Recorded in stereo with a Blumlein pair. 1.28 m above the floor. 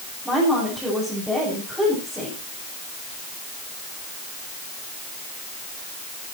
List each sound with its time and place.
0.2 s a woman speaking: straight ahead, 8 m